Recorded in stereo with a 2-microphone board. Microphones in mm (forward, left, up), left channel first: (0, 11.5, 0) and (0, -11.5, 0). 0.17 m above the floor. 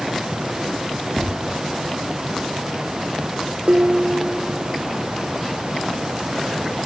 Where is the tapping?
70° right (ahead or behind), 8.5 m.